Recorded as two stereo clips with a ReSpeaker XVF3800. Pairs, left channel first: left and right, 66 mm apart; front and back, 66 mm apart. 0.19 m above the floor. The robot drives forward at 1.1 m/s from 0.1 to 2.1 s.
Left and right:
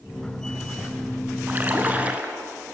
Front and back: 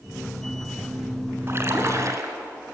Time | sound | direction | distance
1.5 | a splash | 140° right | 2 m